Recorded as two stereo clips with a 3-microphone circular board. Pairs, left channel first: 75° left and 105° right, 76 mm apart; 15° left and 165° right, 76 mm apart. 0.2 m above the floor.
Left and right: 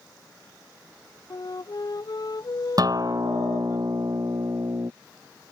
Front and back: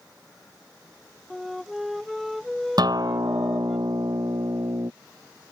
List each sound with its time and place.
1.3 s a flute: 110° left
2.8 s a guitar: 140° right